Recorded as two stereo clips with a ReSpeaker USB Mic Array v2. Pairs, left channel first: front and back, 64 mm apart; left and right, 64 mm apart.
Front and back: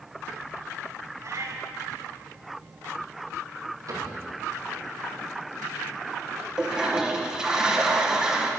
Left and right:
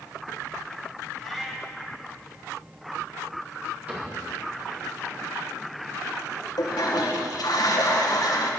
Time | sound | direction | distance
1.2 | a cat meowing | straight behind | 2 m
3.9 | a cupboard door | 155° right | 4.5 m
6.6 | a toilet flushing | 100° left | 1.5 m